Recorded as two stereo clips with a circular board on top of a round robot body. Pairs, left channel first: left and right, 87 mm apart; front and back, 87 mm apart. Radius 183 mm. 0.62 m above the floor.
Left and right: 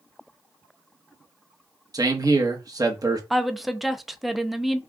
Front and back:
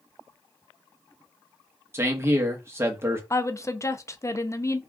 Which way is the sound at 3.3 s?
Straight ahead.